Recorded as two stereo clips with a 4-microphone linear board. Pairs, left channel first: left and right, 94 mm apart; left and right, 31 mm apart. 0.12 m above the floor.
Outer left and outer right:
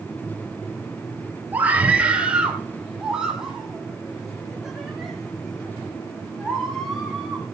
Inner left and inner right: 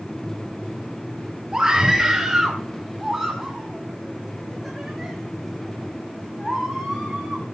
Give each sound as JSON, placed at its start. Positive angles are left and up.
{"t": 1.5, "sound": "a scream", "side_deg": -20, "distance_m": 2.5}